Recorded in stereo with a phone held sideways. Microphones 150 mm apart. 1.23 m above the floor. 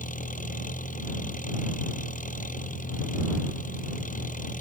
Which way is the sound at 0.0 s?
65° left (ahead or behind).